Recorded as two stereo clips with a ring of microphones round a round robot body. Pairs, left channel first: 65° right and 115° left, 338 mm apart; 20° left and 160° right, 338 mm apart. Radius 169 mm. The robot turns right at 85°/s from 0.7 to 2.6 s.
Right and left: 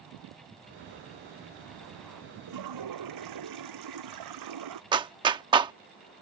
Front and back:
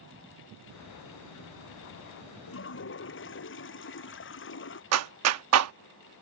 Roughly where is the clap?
Behind.